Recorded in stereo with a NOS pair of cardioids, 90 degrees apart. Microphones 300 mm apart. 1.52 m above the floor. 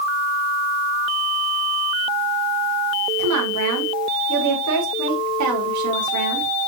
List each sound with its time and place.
3.2 s a woman speaking: 65° right, 3.5 m